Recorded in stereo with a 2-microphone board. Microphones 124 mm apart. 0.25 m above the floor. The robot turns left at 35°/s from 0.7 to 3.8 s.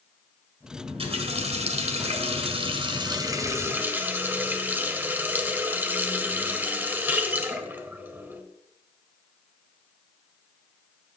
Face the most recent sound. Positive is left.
turn(degrees=-160)